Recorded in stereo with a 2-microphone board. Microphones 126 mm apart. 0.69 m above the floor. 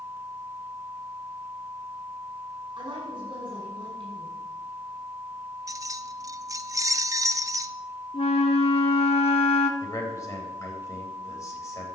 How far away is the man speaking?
About 3.5 m.